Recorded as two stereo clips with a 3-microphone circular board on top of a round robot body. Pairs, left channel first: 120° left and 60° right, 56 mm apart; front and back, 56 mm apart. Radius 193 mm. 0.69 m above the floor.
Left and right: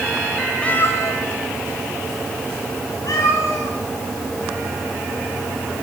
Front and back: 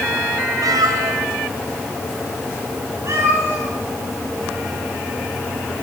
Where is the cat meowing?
165° right, 0.6 m; by 3.7 s 140° left, 5 m.